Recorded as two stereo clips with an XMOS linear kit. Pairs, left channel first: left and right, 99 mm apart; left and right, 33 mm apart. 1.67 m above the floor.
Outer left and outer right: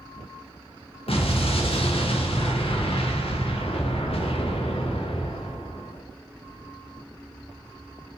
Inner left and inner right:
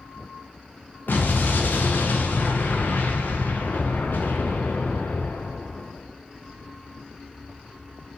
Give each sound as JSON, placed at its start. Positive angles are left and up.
{"t": 1.1, "sound": "an explosion", "side_deg": 75, "distance_m": 0.5}